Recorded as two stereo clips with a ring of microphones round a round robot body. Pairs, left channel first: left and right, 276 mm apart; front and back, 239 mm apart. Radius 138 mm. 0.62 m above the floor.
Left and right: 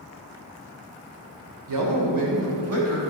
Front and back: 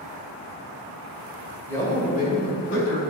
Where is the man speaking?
80° right, 1.9 m; by 3.0 s 45° right, 2.5 m.